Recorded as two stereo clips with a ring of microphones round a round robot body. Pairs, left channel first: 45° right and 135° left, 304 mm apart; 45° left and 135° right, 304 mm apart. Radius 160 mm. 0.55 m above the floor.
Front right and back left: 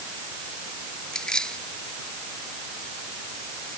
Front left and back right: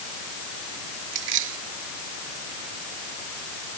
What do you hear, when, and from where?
1.1 s keys jangling: 135° right